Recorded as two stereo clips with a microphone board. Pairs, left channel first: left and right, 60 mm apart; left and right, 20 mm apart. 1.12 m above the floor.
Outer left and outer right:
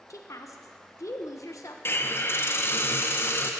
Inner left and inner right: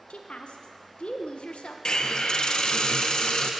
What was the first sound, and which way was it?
A woman speaking, 65° left (ahead or behind).